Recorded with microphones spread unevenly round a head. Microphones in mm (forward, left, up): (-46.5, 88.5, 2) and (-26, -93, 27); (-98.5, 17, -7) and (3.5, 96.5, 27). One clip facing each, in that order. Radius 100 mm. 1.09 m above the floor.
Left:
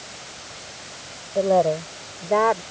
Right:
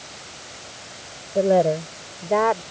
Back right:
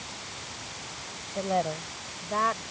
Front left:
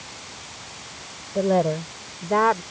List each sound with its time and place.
1.4 s a woman speaking: 10° right; by 2.6 s 10° left